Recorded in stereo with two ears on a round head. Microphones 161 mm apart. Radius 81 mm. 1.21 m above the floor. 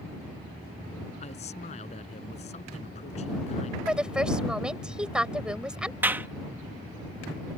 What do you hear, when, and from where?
1.2 s a man speaking: 35° left (ahead or behind)
3.9 s a woman speaking: 5° right (ahead or behind)
6.0 s a clap: 10° right (ahead or behind)